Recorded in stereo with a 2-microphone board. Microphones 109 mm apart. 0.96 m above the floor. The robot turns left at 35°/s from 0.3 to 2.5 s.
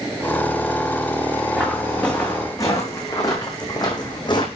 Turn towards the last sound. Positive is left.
turn(degrees=45)  # may be behind; listen again after turning